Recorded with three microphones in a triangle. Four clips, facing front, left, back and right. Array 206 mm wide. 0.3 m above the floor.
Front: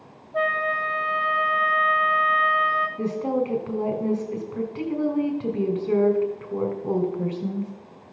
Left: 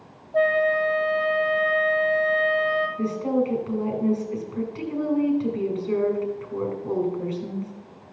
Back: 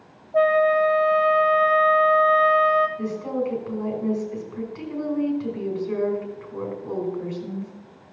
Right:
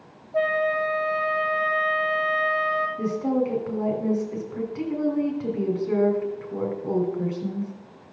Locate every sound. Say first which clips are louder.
0.3 s a flute: left 3 dB, back 7 dB; 165° left, 1.2 m
3.0 s a woman speaking: even, front 2 dB; 20° right, 2.5 m